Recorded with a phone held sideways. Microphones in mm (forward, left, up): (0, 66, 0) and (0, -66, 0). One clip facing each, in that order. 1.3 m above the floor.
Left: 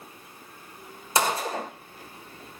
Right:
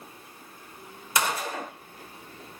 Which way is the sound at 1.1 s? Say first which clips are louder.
Left 3 dB; 30° left (ahead or behind).